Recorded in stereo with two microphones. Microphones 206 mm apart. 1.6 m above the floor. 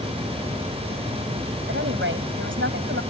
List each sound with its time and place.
1.7 s a woman speaking: 80° right